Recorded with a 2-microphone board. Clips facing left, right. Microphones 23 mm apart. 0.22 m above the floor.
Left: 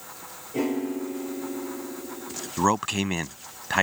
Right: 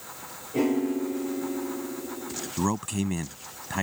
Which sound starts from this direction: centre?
A piano, at 0.5 s.